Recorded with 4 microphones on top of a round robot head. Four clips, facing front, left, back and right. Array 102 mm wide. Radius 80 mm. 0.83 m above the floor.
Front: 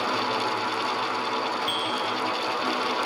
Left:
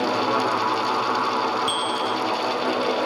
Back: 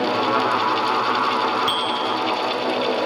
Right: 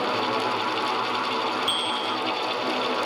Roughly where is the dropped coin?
No dropped coin in this recording.